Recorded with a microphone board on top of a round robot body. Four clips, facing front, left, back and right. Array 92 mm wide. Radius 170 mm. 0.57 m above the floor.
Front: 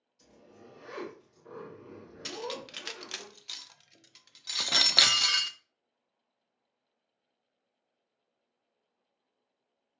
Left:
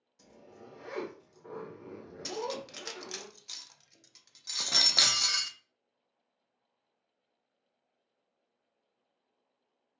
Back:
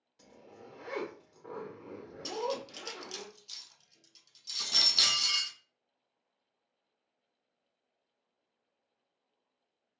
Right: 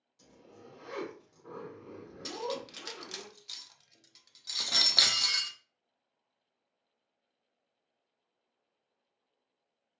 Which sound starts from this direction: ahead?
Cutlery clinking, at 2.2 s.